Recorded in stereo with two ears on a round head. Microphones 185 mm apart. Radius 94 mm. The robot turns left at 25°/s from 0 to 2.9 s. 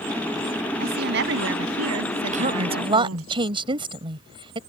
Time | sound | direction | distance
0.8 | a woman speaking | 45° right | ?
2.3 | a woman speaking | 40° right (ahead or behind) | ?